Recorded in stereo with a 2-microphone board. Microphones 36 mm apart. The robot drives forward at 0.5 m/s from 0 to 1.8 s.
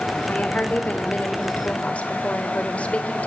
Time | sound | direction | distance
0.3 | a woman speaking | 45° left (ahead or behind) | 2.5 m